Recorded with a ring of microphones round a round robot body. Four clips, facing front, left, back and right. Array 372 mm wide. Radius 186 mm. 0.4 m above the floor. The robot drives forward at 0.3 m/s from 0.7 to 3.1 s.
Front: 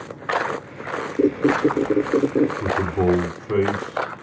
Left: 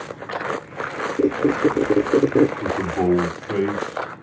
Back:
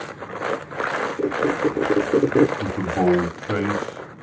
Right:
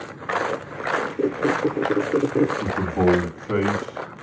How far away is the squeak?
About 0.5 m.